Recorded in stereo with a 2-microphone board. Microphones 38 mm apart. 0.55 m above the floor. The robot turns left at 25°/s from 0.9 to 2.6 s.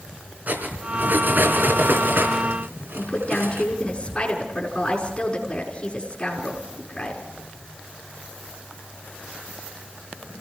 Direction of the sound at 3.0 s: 25° left (ahead or behind).